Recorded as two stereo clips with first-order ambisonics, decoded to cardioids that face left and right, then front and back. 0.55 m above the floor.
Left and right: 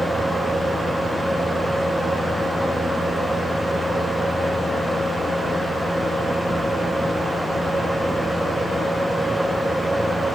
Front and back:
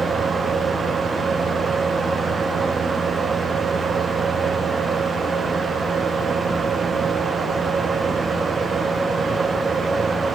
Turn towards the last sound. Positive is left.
No sound to turn to.